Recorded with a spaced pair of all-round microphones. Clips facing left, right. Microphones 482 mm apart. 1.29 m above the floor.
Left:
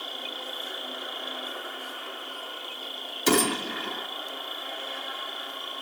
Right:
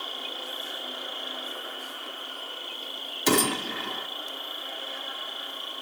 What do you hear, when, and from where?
0.0 s an insect: 50° right (ahead or behind), 7 m
3.3 s a gunshot: centre (ahead or behind), 0.5 m